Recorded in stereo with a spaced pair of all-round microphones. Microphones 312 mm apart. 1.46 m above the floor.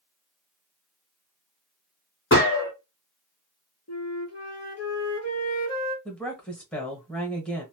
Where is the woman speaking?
5° left (ahead or behind), 1.4 m.